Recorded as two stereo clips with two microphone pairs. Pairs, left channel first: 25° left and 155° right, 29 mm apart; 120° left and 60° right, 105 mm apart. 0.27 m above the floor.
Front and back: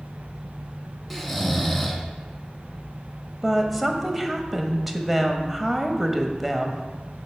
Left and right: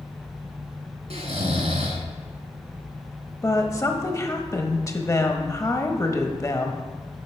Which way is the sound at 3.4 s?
120° left.